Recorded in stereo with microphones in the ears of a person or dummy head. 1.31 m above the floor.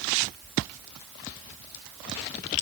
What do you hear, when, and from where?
Only background noise.